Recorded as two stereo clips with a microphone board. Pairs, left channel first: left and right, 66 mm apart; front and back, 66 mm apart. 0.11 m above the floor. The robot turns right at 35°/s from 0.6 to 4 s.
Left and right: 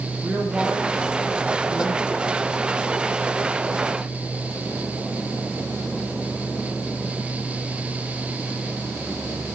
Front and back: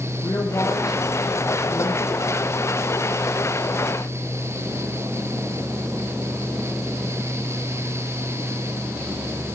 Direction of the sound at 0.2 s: 25° right.